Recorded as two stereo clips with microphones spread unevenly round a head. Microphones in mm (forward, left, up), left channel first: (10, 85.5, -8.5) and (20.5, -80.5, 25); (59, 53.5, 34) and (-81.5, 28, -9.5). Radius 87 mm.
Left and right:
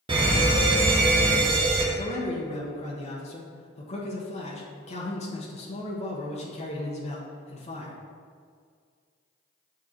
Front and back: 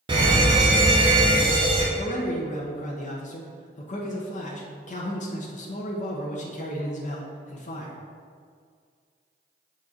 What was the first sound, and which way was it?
A fire alarm, 150° right.